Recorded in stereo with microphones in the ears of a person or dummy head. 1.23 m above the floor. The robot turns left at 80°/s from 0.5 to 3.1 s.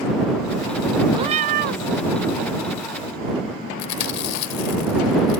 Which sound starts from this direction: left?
Chewing, at 3.8 s.